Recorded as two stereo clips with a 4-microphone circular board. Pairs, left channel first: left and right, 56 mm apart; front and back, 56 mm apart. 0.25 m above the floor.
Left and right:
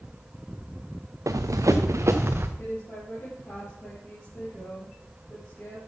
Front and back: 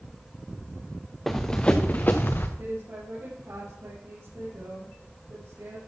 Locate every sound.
1.3 s running footsteps: 85° right, 1.3 m; by 2.5 s 45° right, 1.9 m
2.6 s a woman speaking: 150° left, 5.5 m